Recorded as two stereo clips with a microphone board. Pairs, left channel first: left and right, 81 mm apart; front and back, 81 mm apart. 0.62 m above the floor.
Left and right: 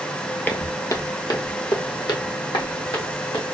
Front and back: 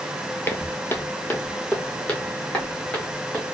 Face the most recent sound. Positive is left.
turn(degrees=80)